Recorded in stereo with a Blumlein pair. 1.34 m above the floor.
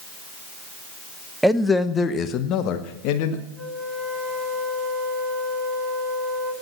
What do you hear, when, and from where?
1.4 s a man speaking: straight ahead, 0.9 m; by 3.4 s 45° left, 1.8 m
3.5 s a flute: 10° right, 6.5 m